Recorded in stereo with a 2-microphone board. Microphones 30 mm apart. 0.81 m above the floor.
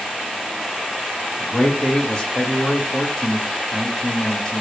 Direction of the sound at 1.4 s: 25° left (ahead or behind).